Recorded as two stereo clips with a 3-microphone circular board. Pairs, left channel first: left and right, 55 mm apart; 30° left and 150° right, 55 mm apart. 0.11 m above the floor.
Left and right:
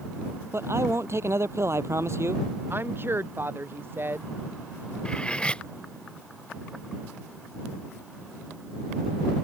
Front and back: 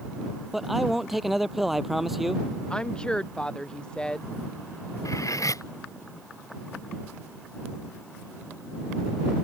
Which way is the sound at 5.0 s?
15° left.